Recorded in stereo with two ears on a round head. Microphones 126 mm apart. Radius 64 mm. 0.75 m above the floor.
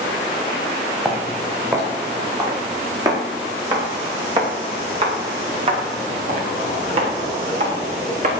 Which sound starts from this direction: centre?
Footsteps, at 1.1 s.